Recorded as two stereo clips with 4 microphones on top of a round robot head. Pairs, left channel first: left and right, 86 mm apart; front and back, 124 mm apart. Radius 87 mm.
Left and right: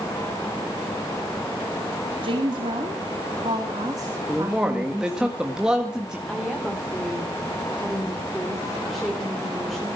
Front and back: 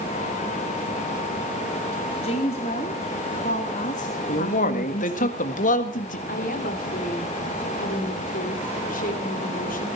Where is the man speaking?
5° right, 1.8 m.